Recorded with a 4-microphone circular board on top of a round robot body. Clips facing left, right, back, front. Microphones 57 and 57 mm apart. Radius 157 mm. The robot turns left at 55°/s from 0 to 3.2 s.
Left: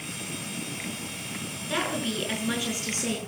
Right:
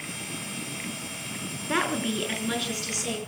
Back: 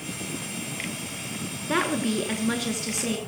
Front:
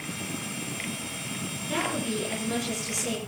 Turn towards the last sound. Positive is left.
turn(degrees=135)